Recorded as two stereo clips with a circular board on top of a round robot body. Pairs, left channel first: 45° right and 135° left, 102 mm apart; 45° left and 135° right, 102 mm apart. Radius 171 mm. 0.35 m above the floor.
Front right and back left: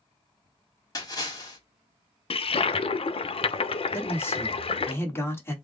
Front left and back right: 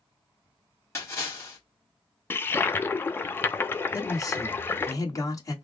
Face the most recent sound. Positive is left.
turn(degrees=10)